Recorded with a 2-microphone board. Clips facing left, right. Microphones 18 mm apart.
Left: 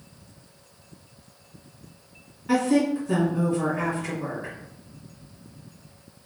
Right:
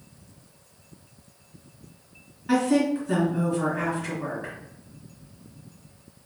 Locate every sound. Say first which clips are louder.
2.5 s a woman speaking: even; centre (ahead or behind), 2.0 m